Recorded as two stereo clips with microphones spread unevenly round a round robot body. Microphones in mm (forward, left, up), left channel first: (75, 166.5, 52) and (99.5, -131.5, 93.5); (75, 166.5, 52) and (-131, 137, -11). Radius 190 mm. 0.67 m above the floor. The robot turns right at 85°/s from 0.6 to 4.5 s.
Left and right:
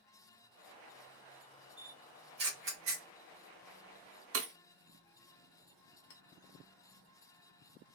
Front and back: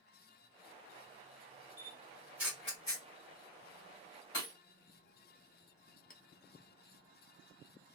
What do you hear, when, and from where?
1.8 s a camera shutter: straight behind, 1.0 m; by 3.0 s 70° right, 1.0 m
4.3 s breaking glass: 40° right, 0.8 m; by 4.5 s 30° right, 0.8 m
6.1 s a clink: 65° left, 0.8 m